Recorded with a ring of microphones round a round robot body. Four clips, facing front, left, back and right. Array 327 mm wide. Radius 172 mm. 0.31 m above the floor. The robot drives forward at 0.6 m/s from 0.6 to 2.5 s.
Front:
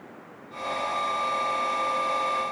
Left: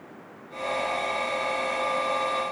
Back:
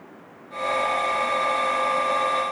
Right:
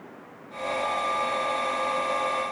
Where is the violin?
No violin in this recording.